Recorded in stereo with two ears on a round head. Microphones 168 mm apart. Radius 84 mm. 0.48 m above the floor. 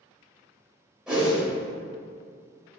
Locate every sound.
1.1 s a whoosh: 5° right (ahead or behind), 1.6 m